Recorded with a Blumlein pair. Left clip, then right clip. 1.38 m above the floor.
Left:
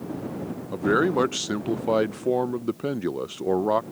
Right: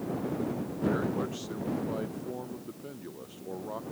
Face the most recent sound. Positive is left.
turn(degrees=55)